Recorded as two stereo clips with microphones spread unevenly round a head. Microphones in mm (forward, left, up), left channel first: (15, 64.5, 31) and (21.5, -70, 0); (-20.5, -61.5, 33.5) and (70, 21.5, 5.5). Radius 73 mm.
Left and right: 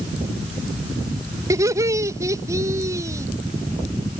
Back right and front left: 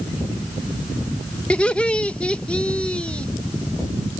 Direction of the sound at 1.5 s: 45° right.